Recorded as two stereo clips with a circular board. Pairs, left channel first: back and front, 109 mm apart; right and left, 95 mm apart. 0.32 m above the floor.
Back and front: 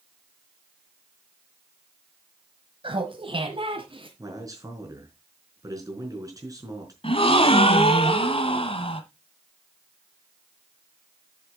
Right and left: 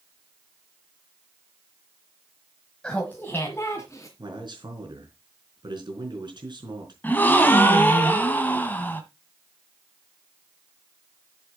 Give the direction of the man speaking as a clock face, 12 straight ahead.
10 o'clock.